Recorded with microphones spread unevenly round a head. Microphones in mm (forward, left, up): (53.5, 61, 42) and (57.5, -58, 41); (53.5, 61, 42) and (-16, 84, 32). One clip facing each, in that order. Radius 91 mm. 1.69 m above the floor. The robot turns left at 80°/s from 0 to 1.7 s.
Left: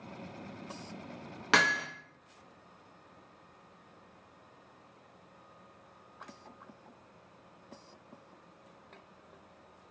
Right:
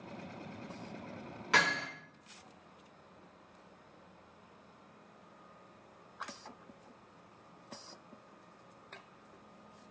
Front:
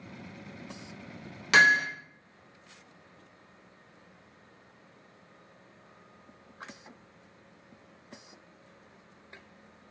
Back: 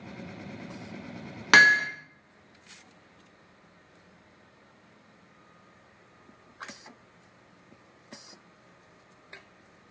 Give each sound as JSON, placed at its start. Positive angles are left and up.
{"t": 1.5, "sound": "hammering", "azimuth_deg": 130, "distance_m": 0.7}